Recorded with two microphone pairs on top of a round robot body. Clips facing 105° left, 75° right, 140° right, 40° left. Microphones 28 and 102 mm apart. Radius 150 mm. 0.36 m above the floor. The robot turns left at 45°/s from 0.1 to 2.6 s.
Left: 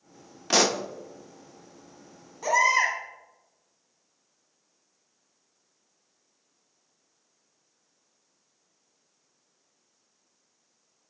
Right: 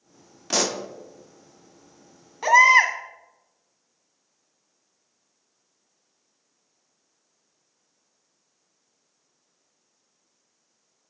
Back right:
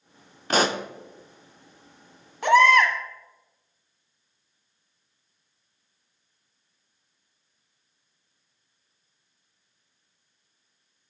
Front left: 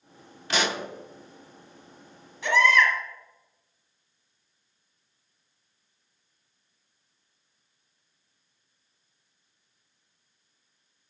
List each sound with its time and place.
0.5 s a pop: 170° left, 0.7 m; by 0.8 s 155° left, 0.7 m
2.4 s a baby crying: 105° right, 1.5 m; by 2.9 s 110° right, 1.5 m